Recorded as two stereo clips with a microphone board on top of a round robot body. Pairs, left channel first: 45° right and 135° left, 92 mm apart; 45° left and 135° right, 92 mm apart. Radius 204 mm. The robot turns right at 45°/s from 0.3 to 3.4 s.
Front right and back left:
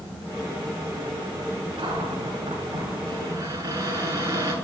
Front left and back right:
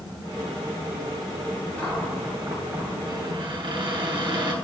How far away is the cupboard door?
About 8.5 m.